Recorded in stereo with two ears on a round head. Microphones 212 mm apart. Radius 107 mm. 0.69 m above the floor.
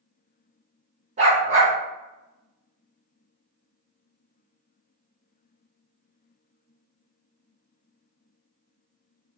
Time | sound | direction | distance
1.2 | a dog barking | 30° right (ahead or behind) | 0.6 m